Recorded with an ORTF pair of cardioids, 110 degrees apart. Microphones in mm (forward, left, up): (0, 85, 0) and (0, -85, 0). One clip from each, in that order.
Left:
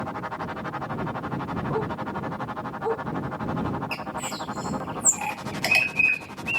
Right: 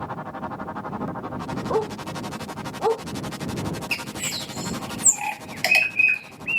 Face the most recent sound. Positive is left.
turn(degrees=-40)